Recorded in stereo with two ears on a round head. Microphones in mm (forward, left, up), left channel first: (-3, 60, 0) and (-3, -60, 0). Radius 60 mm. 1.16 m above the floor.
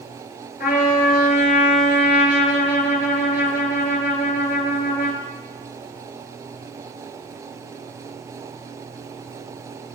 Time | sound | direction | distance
0.6 | a trumpet | 75° left (ahead or behind) | 2.5 m